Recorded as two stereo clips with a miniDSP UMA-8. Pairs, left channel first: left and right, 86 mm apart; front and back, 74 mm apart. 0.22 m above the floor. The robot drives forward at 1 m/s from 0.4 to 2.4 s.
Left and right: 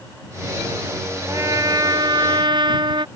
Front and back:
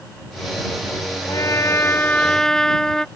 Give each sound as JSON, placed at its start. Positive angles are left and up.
{"t": 1.3, "sound": "a trumpet", "azimuth_deg": -40}